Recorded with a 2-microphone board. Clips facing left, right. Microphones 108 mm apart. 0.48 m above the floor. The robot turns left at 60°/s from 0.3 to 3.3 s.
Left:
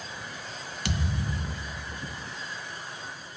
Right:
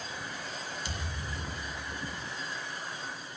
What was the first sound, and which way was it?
A thud, 105° left.